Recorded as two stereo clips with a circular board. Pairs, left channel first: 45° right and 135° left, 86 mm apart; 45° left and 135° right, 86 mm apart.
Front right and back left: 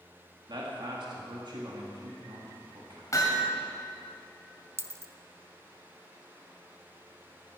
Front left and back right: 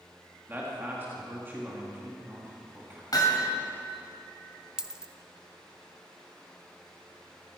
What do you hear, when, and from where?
0.5 s a man speaking: 160° left, 2 m
3.1 s hammering: 5° left, 2 m
4.8 s a dropped coin: 155° left, 0.5 m